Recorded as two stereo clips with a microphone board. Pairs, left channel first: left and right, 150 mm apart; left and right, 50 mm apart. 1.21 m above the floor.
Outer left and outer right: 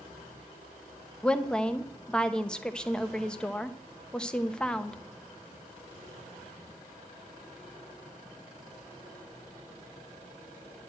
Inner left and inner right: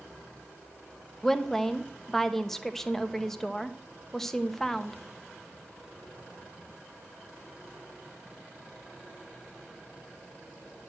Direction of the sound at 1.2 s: 5° left (ahead or behind).